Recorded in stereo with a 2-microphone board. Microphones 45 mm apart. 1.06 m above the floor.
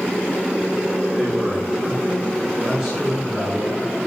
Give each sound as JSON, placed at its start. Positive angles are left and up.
{"t": 1.2, "sound": "a man speaking", "side_deg": -15, "distance_m": 3.0}